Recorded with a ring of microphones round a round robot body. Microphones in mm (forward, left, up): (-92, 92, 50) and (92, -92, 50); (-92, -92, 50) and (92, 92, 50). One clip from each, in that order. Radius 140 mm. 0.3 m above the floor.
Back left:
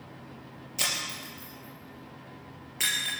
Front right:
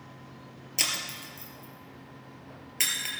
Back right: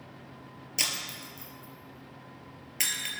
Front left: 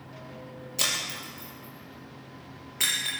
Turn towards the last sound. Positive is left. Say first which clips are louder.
# even, front left 3 dB
turn(degrees=-95)